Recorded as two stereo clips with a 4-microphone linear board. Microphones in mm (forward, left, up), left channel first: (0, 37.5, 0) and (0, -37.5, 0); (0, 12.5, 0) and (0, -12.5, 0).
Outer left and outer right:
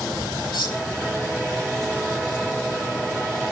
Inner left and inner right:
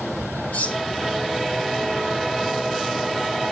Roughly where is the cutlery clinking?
Left.